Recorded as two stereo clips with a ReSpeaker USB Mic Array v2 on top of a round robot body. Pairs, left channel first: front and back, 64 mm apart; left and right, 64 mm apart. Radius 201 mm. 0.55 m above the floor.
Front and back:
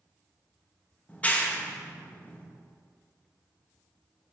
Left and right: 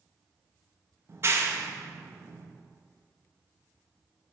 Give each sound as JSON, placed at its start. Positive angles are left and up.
{"t": 1.1, "sound": "a clap", "azimuth_deg": -60, "distance_m": 1.1}